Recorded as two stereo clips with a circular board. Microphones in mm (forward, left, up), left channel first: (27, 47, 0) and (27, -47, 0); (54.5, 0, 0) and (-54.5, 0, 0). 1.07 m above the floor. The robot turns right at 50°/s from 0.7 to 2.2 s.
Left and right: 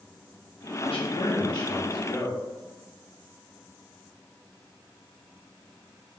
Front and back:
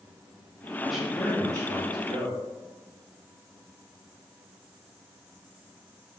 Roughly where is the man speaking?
Left.